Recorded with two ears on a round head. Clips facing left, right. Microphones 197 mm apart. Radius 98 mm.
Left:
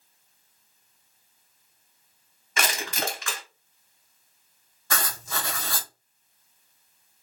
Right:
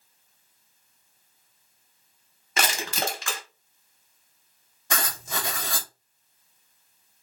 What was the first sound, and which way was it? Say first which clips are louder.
Crushing: right 1 dB; 30° right (ahead or behind).